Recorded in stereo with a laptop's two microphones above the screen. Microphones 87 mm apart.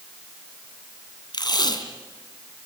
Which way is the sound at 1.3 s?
60° left (ahead or behind).